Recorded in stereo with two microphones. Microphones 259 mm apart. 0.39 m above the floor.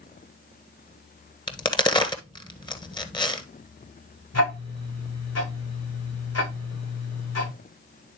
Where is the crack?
20° left (ahead or behind), 1.1 m.